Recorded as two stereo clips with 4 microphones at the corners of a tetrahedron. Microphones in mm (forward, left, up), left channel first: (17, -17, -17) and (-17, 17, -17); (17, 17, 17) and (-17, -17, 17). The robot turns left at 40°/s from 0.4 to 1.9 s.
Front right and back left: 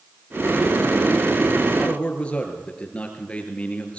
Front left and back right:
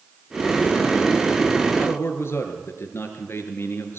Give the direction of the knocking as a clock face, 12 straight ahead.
I don't hear knocking.